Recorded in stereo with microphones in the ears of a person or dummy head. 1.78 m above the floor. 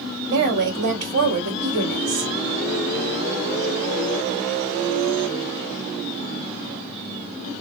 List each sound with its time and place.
0.3 s a woman speaking: 75° right (ahead or behind), 1.9 m